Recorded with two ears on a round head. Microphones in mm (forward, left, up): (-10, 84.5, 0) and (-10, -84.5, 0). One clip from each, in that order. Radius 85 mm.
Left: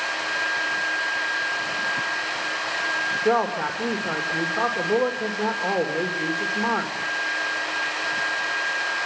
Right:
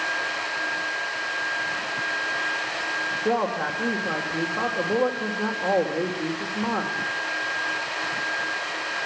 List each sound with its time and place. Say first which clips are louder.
3.2 s a man speaking: left 2 dB; 65° left (ahead or behind), 3 m